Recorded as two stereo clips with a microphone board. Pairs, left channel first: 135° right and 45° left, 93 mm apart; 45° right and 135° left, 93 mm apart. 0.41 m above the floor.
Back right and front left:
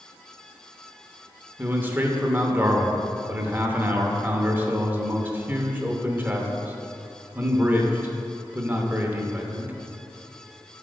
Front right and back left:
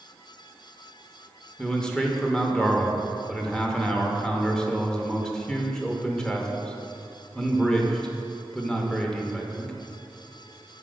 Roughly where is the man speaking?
Ahead left.